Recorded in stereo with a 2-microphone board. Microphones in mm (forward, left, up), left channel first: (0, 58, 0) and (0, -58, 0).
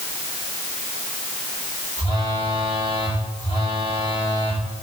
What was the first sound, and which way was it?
A phone buzzing, 75° left (ahead or behind).